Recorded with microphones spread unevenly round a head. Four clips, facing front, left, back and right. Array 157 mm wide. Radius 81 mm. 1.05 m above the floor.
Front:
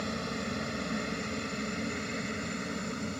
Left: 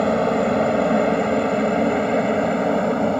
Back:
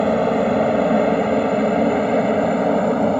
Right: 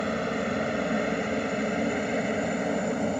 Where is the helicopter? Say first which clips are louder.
Left 10 dB, back 19 dB; 150° left; by 3.2 s 155° left.